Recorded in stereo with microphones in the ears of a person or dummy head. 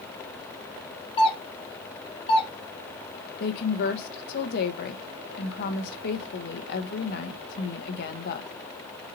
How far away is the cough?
I don't hear a cough.